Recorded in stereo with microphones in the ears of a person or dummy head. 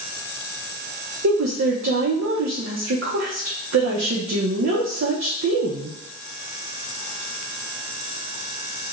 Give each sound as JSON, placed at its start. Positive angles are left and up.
{"t": 1.2, "sound": "a woman speaking", "side_deg": -70, "distance_m": 0.6}